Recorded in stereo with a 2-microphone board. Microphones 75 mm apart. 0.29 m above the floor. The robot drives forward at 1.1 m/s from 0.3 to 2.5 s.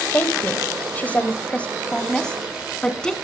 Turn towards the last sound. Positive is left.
turn(degrees=10)  # may be behind; listen again after turning